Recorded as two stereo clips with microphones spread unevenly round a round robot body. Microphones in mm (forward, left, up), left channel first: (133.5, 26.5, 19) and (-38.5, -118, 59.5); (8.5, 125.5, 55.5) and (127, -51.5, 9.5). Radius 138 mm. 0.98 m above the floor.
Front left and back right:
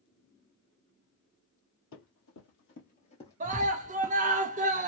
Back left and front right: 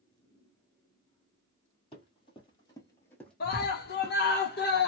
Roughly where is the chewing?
No chewing in this recording.